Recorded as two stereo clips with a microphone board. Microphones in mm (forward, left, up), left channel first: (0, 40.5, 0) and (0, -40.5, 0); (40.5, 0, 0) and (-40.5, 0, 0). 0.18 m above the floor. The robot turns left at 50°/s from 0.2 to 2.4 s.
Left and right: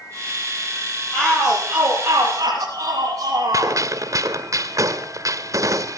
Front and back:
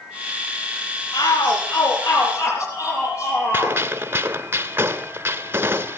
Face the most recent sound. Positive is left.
turn(degrees=-125)